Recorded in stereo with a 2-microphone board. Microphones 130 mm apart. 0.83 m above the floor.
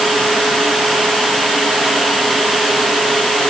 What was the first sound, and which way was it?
Only background noise.